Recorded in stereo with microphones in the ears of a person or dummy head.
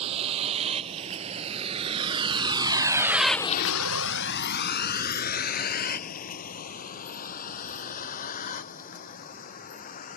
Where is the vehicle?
35° right (ahead or behind); by 10.2 s 45° left (ahead or behind).